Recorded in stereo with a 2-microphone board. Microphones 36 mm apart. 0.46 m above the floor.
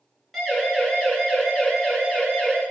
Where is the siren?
15° left (ahead or behind), 8.5 m; by 2.6 s 20° left (ahead or behind), 7.5 m.